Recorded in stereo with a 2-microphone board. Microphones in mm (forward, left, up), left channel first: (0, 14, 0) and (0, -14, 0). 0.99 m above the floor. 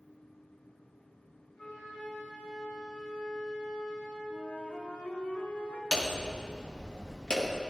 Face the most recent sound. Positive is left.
turn(degrees=25)  # may be behind; listen again after turning